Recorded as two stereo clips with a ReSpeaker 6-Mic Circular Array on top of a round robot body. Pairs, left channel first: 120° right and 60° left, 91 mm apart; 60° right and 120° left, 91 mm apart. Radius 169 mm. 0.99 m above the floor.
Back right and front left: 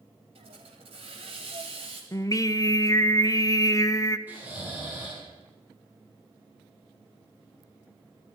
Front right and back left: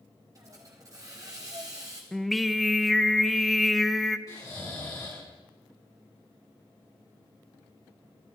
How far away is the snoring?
About 7.5 m.